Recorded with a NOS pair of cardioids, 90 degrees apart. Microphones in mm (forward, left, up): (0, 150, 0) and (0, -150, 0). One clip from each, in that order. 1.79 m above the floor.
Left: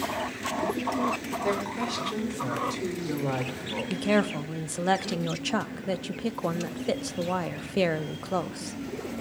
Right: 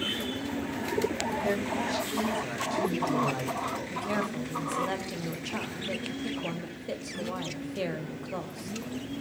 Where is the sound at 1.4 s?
35° left, 3.5 m.